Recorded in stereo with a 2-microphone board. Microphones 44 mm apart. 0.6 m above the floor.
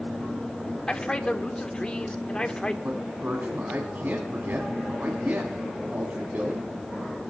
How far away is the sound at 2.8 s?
About 1.8 m.